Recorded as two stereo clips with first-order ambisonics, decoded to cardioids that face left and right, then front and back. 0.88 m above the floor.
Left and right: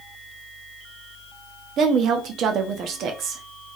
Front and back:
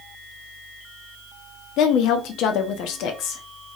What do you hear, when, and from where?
1.8 s a woman speaking: 40° right, 0.9 m